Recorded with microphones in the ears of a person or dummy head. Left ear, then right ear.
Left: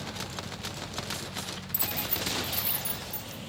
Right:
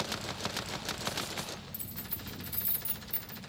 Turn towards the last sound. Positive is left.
turn(degrees=-15)  # may be behind; listen again after turning